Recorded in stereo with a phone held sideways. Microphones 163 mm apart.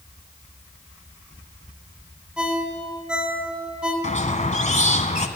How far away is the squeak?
About 1.4 m.